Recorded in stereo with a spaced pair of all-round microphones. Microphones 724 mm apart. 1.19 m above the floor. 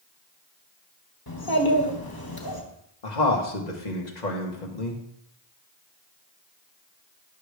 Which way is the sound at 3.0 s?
70° left (ahead or behind).